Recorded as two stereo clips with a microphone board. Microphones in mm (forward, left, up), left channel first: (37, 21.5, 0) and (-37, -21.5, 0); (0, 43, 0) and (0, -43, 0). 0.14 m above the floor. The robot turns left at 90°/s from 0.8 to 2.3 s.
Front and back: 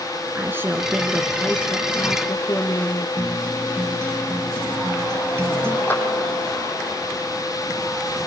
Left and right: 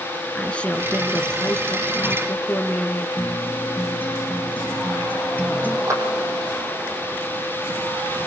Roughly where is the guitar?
Behind left.